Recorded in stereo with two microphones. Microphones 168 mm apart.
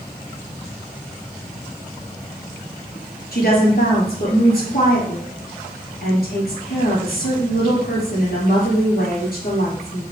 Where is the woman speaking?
70° left (ahead or behind), 4 m.